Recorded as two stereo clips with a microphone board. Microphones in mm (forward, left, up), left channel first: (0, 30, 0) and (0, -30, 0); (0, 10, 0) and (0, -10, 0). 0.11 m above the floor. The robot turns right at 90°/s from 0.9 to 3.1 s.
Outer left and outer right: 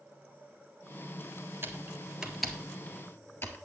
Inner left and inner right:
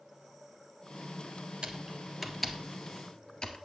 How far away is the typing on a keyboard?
About 1.5 m.